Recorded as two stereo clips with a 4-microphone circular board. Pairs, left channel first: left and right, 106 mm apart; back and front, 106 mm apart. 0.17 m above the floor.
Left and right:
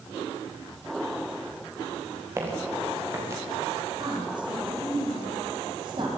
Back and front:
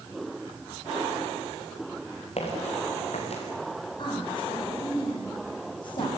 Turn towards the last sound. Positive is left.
turn(degrees=-135)